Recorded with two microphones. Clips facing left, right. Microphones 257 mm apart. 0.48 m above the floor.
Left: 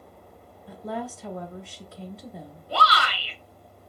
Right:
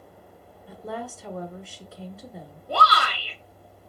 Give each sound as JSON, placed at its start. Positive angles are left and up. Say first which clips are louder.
{"t": 0.7, "sound": "a woman speaking", "louder": "left 2 dB", "side_deg": 0, "distance_m": 0.7}
{"t": 2.7, "sound": "a shout", "louder": "right 1 dB", "side_deg": -50, "distance_m": 1.2}